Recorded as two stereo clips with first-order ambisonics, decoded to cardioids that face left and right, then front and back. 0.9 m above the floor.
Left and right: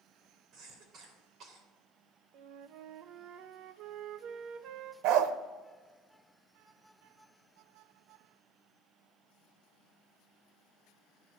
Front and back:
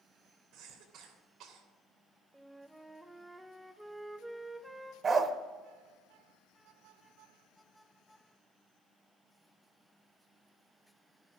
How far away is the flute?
About 0.6 m.